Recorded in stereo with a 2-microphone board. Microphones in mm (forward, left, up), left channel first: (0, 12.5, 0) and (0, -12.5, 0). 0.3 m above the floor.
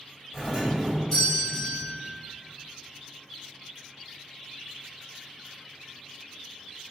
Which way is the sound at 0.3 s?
15° left (ahead or behind).